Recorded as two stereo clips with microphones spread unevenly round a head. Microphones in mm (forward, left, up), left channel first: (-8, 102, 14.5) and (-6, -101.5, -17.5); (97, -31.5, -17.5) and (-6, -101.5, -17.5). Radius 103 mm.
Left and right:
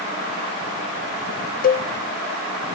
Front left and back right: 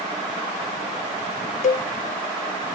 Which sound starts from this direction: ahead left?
A cowbell, at 1.6 s.